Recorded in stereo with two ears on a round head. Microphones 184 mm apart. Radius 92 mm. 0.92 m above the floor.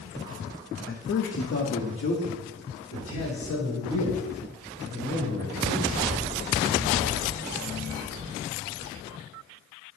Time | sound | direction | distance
0.9 | a man speaking | 35° left (ahead or behind) | 0.5 m